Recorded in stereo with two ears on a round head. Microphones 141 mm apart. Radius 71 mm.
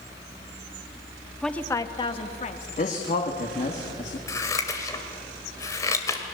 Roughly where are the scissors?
Centre.